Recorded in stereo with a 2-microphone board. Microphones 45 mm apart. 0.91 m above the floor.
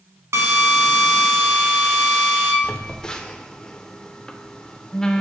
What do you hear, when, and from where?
0.3 s a drill: 75° right (ahead or behind), 0.9 m
2.6 s a phone buzzing: 20° left (ahead or behind), 0.6 m